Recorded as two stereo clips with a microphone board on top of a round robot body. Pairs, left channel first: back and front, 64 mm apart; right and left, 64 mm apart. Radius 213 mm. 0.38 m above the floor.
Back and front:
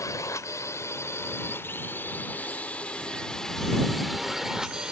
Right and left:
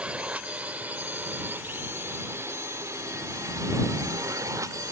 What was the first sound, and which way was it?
A drone, 155° left.